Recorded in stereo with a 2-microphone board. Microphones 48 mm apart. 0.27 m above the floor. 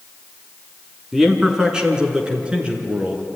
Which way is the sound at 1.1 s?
10° right (ahead or behind).